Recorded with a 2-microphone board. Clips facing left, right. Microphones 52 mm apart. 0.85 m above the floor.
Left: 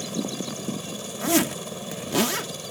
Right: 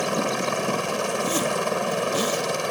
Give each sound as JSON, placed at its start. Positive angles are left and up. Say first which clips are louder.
{"t": 0.0, "sound": "a helicopter", "louder": "right 7 dB", "side_deg": -65}
{"t": 1.2, "sound": "a zipper", "louder": "right 1 dB", "side_deg": 80}